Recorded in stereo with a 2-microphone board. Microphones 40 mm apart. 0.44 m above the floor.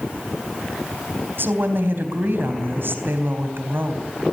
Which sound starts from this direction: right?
A woman speaking, at 1.4 s.